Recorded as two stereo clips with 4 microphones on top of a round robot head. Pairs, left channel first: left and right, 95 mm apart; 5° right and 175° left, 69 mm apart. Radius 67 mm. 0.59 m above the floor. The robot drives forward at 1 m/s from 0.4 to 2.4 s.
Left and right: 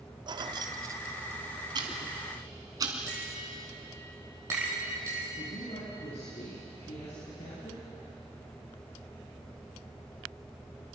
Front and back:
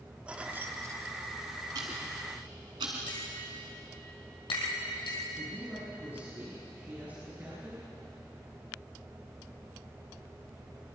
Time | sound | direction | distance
0.3 | keys jangling | 115° right | 0.9 m
1.8 | ticking | 130° right | 2.5 m
3.1 | tapping | 20° right | 5 m
5.4 | a woman speaking | 110° left | 6.5 m